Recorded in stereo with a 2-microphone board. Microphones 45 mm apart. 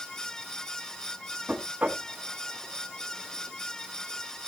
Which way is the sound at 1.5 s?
35° right (ahead or behind).